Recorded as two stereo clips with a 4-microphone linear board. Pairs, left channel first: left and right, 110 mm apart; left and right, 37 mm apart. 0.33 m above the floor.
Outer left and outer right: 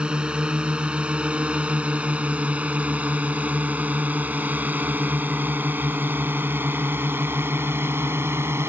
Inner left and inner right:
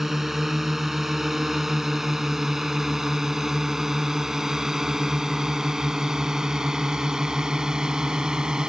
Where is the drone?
10° right (ahead or behind); by 8.7 s 20° right (ahead or behind).